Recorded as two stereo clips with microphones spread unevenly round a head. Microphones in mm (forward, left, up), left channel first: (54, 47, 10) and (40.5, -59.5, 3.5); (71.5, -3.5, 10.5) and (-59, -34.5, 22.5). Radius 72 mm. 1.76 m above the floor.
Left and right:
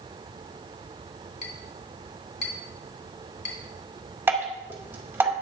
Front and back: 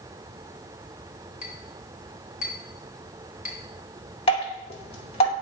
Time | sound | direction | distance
1.4 | a clink | 110° left | 2.5 m
4.3 | dripping | 30° right | 3 m